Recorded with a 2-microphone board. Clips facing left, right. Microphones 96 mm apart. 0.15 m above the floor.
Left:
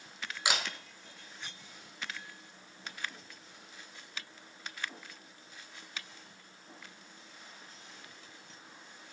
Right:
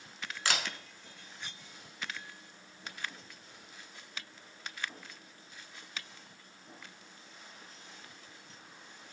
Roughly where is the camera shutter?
Centre.